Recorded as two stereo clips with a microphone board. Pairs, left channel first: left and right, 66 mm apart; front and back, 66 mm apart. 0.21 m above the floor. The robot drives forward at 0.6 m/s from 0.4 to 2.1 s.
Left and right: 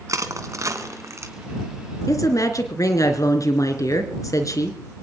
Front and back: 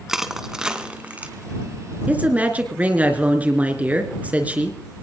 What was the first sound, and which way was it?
Crushing, 100° right.